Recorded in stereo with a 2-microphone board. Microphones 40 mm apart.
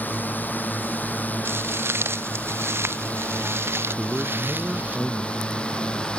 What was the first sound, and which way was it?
A drone, 50° left (ahead or behind).